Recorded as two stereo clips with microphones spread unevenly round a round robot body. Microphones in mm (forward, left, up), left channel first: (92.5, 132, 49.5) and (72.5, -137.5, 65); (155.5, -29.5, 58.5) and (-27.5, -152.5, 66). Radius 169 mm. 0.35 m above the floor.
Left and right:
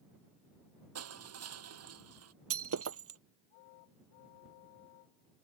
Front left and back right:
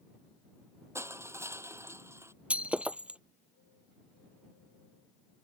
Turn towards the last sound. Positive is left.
turn(degrees=-60)